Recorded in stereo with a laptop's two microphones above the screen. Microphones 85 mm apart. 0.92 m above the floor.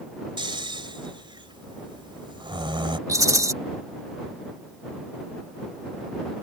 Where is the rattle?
40° right (ahead or behind).